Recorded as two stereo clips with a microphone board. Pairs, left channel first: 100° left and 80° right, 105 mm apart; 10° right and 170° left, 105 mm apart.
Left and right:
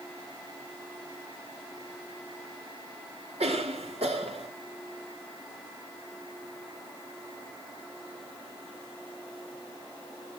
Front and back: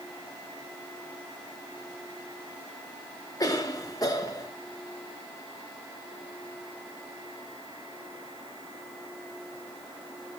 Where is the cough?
65° right, 2 m.